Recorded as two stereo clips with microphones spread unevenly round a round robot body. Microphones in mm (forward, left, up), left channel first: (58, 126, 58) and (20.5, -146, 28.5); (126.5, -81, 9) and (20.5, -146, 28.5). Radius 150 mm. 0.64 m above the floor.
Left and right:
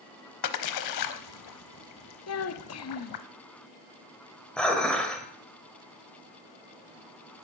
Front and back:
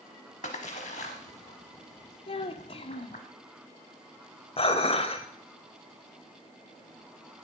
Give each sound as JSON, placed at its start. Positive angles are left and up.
{"t": 0.4, "sound": "a splash", "azimuth_deg": 95, "distance_m": 0.9}
{"t": 2.3, "sound": "a child speaking", "azimuth_deg": 60, "distance_m": 1.1}
{"t": 4.6, "sound": "dishes clattering", "azimuth_deg": -5, "distance_m": 2.0}